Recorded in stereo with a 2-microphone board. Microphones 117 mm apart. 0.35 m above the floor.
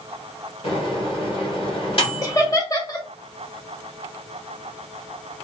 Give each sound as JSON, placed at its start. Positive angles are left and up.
{"t": 0.6, "sound": "a microwave", "side_deg": 50, "distance_m": 2.0}
{"t": 2.2, "sound": "laughter", "side_deg": 30, "distance_m": 1.0}